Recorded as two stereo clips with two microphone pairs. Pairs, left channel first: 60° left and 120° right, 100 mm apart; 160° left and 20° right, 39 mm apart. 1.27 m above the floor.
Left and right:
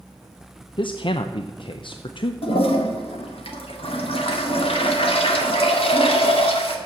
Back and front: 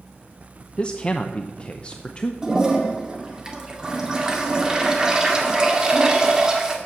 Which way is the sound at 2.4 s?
45° left.